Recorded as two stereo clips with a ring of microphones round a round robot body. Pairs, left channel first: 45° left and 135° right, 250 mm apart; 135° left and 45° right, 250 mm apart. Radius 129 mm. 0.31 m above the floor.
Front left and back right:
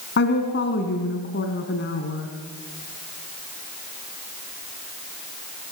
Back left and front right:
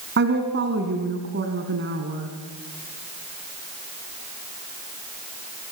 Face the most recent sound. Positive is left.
turn(degrees=0)